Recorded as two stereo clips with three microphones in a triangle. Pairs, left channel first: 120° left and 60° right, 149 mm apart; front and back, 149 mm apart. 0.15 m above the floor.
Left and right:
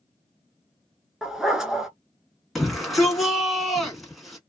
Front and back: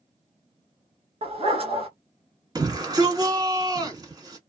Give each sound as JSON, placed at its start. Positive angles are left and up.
{"t": 1.2, "sound": "a dog barking", "azimuth_deg": -145, "distance_m": 0.9}
{"t": 2.5, "sound": "a shout", "azimuth_deg": -150, "distance_m": 1.2}